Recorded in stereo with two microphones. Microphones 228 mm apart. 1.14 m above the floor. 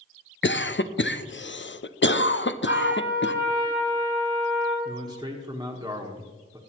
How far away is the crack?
No crack in this recording.